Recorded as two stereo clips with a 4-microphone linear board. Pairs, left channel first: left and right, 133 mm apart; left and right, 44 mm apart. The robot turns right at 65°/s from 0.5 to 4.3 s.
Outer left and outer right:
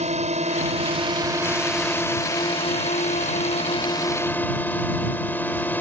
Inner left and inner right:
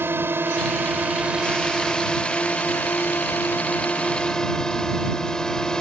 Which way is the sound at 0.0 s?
85° right.